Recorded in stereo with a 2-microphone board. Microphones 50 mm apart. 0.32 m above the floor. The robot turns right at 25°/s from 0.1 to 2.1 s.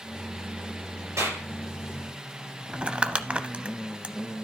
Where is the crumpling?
20° right (ahead or behind), 0.6 m.